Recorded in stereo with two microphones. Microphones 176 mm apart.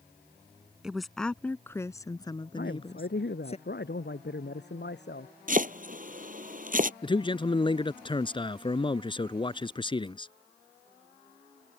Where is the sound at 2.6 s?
75° left (ahead or behind).